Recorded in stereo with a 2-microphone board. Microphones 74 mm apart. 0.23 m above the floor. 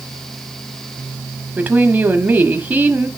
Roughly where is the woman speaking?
Right.